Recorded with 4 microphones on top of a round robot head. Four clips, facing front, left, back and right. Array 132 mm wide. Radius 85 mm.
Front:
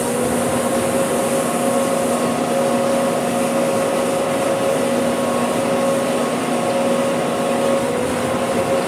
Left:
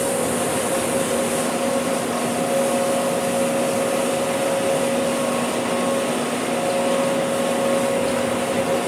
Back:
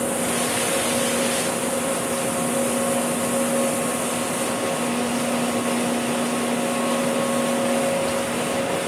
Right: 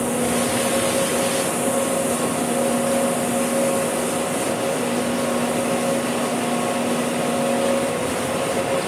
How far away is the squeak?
I don't hear a squeak.